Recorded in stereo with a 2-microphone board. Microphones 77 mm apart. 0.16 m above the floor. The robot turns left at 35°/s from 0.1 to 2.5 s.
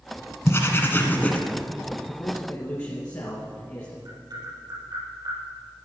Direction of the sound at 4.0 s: 60° right (ahead or behind).